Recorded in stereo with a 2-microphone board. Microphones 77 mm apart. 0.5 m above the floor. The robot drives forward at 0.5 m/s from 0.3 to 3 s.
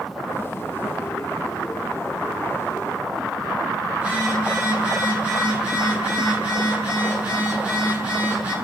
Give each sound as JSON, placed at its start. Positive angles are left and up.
{"t": 3.9, "sound": "a phone buzzing", "side_deg": -20, "distance_m": 2.0}